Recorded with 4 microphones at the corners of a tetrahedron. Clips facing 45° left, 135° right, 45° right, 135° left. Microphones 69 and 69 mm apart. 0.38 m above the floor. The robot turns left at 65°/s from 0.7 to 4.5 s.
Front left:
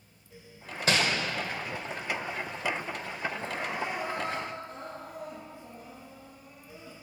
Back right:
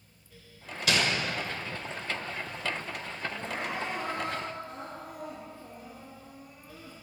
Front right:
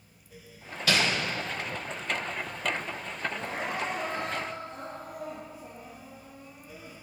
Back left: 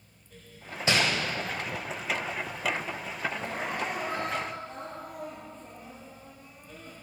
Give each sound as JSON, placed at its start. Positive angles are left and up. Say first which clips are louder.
{"t": 0.9, "sound": "crumpling", "louder": "front left 1 dB, even", "azimuth_deg": 80, "distance_m": 1.2}
{"t": 3.3, "sound": "crying", "louder": "even, even", "azimuth_deg": -55, "distance_m": 2.5}